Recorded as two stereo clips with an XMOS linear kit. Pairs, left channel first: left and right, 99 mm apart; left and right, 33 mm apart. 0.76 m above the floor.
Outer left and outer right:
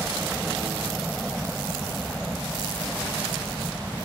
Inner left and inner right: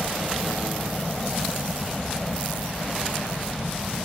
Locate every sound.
0.0 s a helicopter: 5° right (ahead or behind); by 4.1 s 10° right (ahead or behind)